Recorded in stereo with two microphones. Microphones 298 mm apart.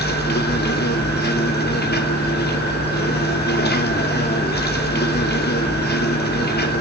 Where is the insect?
35° left (ahead or behind), 1.8 m.